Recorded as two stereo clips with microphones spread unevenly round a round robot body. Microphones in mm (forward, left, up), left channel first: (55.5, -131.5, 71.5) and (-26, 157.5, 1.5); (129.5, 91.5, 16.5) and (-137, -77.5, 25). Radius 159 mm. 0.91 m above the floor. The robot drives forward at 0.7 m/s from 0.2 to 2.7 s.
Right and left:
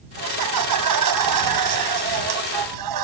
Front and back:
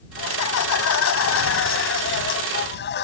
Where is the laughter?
75° left; by 3.0 s 90° left.